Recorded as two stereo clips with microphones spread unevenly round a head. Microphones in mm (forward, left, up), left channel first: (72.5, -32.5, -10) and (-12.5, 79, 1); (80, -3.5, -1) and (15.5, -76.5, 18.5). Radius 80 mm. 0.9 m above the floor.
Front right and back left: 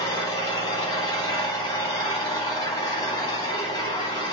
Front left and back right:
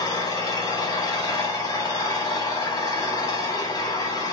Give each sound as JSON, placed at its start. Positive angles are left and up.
{"t": 0.0, "sound": "an engine running", "azimuth_deg": 5, "distance_m": 1.7}